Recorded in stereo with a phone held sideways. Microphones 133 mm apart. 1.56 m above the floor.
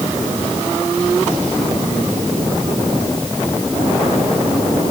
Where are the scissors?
I don't hear scissors.